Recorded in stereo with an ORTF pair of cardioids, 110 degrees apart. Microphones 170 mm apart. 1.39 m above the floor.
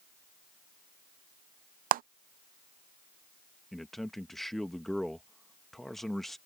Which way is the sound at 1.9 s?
55° right.